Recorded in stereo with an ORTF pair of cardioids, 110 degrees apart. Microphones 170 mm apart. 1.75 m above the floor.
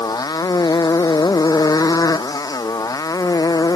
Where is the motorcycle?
20° left.